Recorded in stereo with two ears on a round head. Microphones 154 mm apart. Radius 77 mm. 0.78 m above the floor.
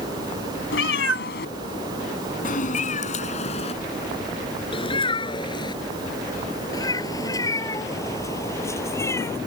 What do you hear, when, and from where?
0.7 s a cat meowing: 80° left; by 9.4 s 15° left (ahead or behind)